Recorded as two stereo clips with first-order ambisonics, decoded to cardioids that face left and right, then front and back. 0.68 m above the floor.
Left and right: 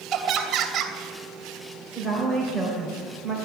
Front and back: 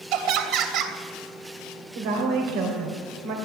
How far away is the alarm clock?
I don't hear an alarm clock.